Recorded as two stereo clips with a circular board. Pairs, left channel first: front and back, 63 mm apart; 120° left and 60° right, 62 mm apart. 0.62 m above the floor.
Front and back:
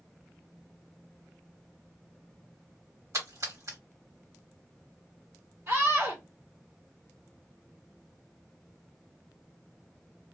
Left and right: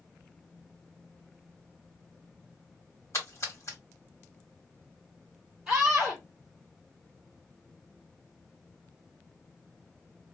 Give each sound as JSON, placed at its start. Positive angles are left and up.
{"t": 3.1, "sound": "a splash", "azimuth_deg": 155, "distance_m": 1.7}
{"t": 5.7, "sound": "a scream", "azimuth_deg": -145, "distance_m": 1.5}